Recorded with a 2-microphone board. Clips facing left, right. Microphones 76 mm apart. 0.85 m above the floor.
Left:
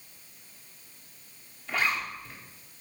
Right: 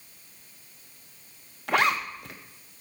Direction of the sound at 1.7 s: 80° right.